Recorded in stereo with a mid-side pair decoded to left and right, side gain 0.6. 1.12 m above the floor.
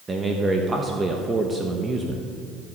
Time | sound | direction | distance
0.1 | a man speaking | 20° right | 1.1 m